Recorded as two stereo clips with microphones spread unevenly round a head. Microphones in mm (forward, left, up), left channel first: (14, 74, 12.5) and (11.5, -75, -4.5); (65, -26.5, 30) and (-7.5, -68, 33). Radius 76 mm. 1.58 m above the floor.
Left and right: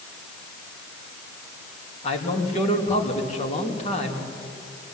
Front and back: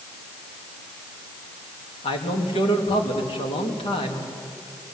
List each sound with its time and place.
2.0 s a man speaking: 40° left, 3 m